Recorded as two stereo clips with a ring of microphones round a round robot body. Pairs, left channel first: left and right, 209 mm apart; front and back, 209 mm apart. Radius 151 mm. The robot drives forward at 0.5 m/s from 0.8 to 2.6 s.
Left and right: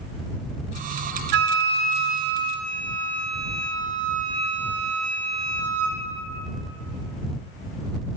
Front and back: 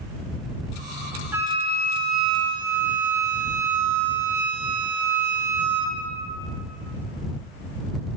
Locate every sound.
1.3 s a flute: 100° right, 0.6 m; by 6.0 s 150° right, 0.9 m